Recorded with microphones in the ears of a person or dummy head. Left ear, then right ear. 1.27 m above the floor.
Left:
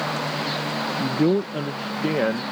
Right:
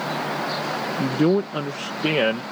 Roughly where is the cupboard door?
No cupboard door in this recording.